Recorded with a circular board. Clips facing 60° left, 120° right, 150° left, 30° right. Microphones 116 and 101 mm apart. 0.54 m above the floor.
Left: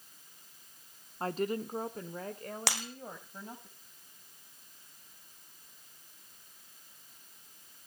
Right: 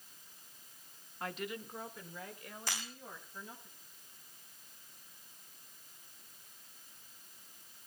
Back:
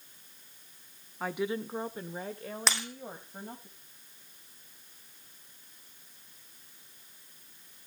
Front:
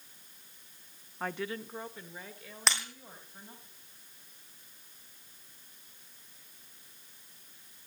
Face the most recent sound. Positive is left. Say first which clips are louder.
# left 5 dB, even
turn(degrees=60)